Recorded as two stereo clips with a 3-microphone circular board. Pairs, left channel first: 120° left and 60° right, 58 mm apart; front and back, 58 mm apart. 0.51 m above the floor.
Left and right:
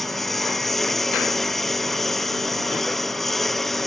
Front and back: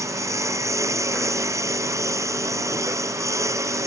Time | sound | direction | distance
0.0 | a lawn mower | 155° right | ?